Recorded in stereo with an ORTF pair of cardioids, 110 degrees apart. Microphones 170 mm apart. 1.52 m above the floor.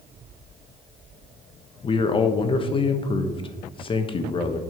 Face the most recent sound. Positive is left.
turn(degrees=30)